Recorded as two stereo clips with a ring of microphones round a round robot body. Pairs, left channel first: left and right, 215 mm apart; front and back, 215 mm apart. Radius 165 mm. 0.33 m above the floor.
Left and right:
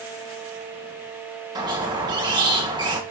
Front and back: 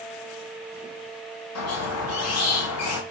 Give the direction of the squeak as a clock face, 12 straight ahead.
1 o'clock.